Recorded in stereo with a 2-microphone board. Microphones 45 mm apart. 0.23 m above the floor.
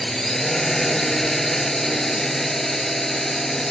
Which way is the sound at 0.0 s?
10° left (ahead or behind).